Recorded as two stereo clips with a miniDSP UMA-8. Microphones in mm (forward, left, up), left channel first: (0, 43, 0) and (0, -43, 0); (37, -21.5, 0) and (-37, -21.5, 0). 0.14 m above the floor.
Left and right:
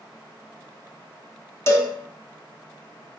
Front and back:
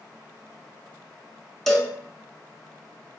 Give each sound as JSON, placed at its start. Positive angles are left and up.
{"t": 1.7, "sound": "a cowbell", "azimuth_deg": 85, "distance_m": 0.6}